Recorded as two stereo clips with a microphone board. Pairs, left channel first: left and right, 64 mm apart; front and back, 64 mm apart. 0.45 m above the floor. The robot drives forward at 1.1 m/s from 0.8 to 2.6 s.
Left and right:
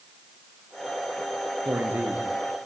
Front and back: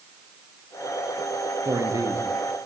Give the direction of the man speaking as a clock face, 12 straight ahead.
5 o'clock.